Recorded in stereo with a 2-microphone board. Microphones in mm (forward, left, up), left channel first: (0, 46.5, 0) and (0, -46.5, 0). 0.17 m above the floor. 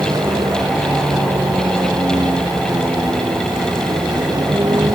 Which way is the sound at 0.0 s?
45° right (ahead or behind).